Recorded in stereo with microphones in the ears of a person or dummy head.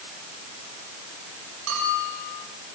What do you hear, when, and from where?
1.7 s a bell: 75° right (ahead or behind), 7 m